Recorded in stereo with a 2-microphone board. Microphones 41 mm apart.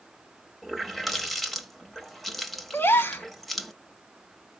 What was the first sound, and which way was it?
A running tap, 5° left (ahead or behind).